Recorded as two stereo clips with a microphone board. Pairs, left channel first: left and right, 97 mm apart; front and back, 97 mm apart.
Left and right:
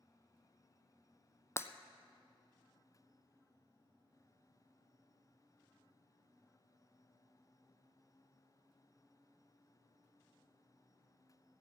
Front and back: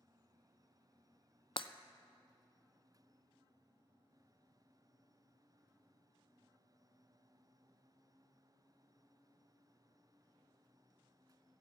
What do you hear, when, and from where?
1.6 s breaking glass: 30° left, 0.5 m